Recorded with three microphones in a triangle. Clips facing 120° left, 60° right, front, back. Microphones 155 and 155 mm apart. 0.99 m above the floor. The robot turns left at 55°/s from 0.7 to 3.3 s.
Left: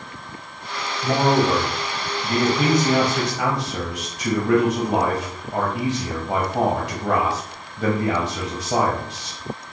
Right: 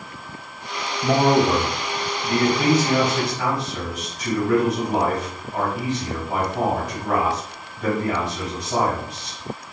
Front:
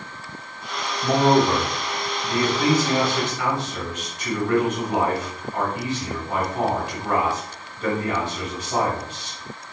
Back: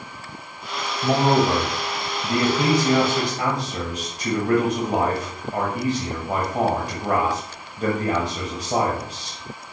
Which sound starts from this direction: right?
A man speaking, at 1.0 s.